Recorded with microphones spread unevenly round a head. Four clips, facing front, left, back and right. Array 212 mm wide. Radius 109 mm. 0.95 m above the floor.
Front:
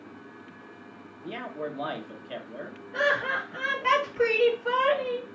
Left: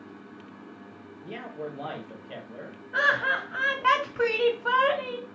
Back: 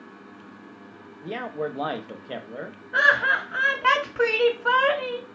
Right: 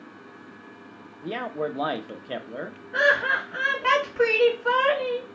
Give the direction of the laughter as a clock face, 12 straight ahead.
6 o'clock.